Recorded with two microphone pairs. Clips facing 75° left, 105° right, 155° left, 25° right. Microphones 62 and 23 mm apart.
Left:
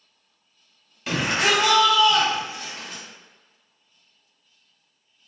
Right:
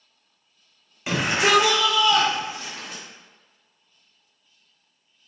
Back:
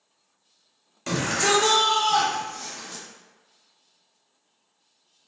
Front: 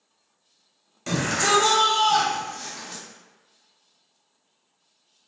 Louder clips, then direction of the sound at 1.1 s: Right 2 dB, front 1 dB; 135° right.